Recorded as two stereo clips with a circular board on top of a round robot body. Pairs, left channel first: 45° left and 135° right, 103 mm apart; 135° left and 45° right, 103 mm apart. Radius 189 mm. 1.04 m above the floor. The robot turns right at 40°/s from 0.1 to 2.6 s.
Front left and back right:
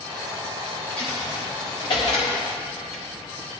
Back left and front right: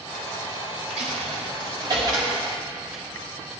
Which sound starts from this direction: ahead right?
A dropped coin, at 0.9 s.